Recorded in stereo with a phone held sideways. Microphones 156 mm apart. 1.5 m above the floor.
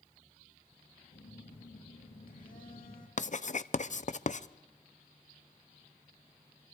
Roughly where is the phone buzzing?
Left.